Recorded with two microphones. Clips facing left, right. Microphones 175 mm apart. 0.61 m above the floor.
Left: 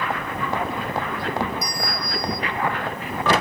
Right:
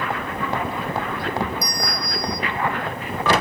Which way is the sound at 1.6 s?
20° left (ahead or behind).